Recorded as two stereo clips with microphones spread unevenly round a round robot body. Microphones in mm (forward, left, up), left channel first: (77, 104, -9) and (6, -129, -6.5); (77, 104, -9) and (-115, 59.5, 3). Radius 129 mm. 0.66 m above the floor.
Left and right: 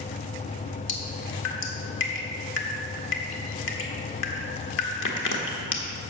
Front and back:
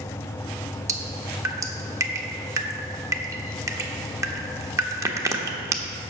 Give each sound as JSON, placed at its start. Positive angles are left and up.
{"t": 0.9, "sound": "dripping", "azimuth_deg": 115, "distance_m": 1.3}